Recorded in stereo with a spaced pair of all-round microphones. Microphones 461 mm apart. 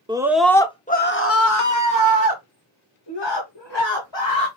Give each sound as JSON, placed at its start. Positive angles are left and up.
{"t": 0.1, "sound": "a scream", "side_deg": -10, "distance_m": 1.0}